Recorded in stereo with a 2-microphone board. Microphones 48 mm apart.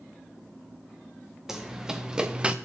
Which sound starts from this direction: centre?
Running footsteps, at 1.5 s.